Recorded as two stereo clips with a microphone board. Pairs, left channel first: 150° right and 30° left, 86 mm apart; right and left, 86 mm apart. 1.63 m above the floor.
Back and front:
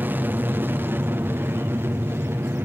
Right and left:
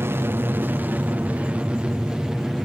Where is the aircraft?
70° left; by 2.7 s 10° left.